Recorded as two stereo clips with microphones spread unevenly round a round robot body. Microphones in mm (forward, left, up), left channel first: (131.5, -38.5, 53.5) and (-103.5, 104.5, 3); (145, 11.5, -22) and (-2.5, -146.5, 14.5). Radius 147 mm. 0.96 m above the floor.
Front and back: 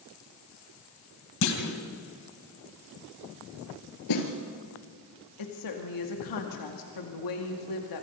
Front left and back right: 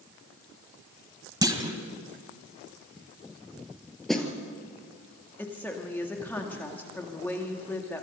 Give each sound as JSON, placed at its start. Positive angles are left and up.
{"t": 1.4, "sound": "a clunk", "azimuth_deg": -65, "distance_m": 2.5}
{"t": 4.1, "sound": "a snare drum", "azimuth_deg": -45, "distance_m": 3.5}
{"t": 5.4, "sound": "a woman speaking", "azimuth_deg": -30, "distance_m": 2.5}